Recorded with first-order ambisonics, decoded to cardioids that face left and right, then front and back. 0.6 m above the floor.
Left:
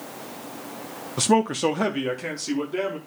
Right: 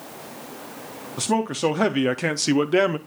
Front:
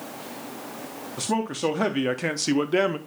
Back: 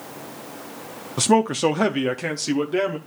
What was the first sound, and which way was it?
A man speaking, 150° left.